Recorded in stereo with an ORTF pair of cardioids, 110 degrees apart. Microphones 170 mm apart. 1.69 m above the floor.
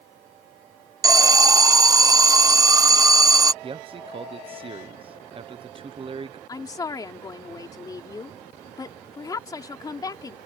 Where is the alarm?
20° right.